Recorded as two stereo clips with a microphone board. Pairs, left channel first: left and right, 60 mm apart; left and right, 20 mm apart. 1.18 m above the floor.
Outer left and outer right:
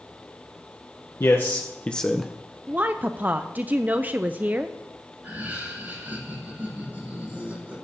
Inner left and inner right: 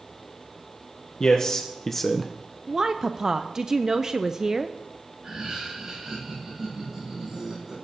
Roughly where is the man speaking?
Left.